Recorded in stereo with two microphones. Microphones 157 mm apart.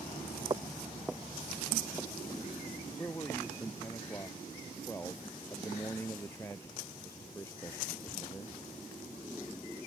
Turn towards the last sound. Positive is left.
turn(degrees=15)  # may be behind; listen again after turning